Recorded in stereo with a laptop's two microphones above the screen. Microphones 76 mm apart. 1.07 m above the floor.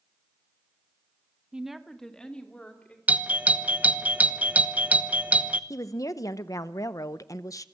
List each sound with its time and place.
1.5 s a woman speaking: 15° right (ahead or behind), 0.7 m; by 3.0 s 20° left (ahead or behind), 2.5 m
3.1 s a doorbell: 20° right (ahead or behind), 0.8 m
5.7 s a woman speaking: 50° left (ahead or behind), 0.7 m